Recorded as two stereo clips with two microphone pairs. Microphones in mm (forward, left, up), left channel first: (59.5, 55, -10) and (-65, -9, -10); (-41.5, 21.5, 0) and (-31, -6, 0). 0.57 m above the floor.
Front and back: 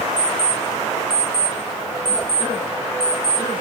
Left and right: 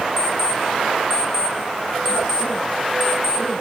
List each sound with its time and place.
0.2 s an alarm clock: 35° left, 5.5 m